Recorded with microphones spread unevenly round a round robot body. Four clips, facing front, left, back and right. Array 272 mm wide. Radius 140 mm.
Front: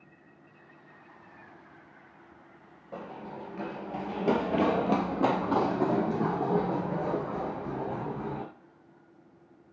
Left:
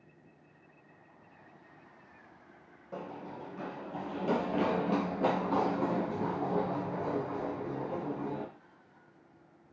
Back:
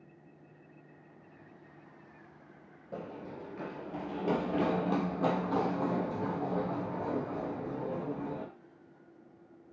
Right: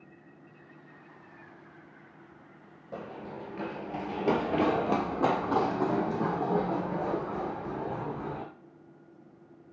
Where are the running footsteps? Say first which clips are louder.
Right 2 dB, front 2 dB; 150° right, 0.8 m; by 8.4 s 25° right, 3 m.